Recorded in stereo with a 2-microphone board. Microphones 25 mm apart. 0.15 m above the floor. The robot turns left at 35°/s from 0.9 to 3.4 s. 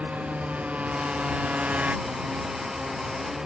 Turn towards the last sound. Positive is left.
turn(degrees=-30)  # may be behind; listen again after turning